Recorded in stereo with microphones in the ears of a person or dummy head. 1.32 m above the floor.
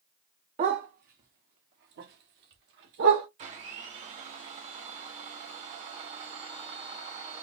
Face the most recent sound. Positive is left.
turn(degrees=-30)  # may be behind; listen again after turning